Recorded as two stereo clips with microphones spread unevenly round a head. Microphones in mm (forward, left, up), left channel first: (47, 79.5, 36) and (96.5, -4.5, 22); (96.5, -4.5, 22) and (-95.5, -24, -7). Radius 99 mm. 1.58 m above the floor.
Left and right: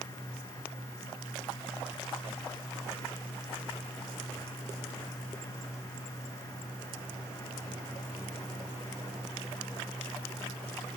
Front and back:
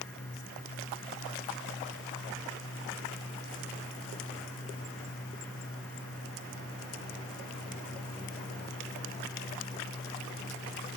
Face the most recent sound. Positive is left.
No sound to turn to.